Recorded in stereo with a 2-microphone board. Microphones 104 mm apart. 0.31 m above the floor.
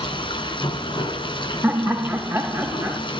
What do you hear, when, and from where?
0.0 s running water: 55° left (ahead or behind), 2.5 m
1.6 s laughter: 15° right (ahead or behind), 1.7 m